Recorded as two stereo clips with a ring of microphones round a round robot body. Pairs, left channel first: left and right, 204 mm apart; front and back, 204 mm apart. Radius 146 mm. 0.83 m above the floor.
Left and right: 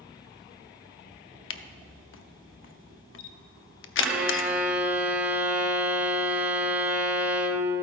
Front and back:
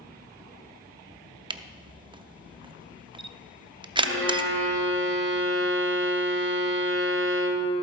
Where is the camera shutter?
110° left, 0.6 m.